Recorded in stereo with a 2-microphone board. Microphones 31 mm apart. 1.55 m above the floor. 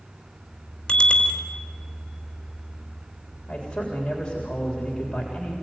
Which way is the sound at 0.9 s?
30° left (ahead or behind).